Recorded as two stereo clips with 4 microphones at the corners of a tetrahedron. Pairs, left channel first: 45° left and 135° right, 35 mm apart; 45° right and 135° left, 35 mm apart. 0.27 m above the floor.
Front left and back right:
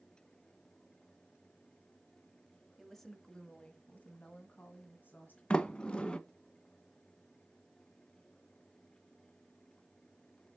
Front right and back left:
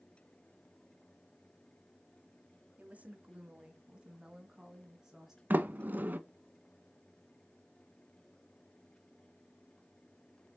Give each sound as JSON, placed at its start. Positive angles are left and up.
{"t": 2.8, "sound": "a woman speaking", "azimuth_deg": 130, "distance_m": 1.2}
{"t": 5.5, "sound": "a sliding door", "azimuth_deg": 100, "distance_m": 0.6}